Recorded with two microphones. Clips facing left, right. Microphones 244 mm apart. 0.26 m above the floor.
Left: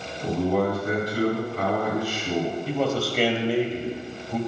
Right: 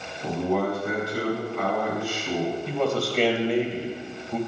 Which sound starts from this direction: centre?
A man speaking, at 2.7 s.